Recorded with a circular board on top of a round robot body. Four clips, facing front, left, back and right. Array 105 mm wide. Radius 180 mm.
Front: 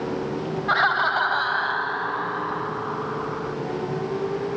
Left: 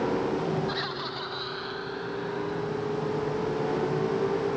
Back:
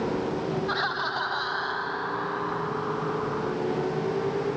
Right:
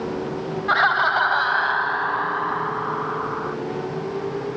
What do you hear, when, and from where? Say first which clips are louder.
0.7 s laughter: right 14 dB, front 7 dB; 60° right; by 3.5 s 85° right